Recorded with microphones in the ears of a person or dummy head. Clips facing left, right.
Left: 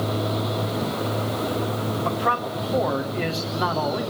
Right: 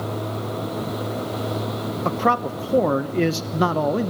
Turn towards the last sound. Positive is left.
turn(degrees=-50)  # may be behind; listen again after turning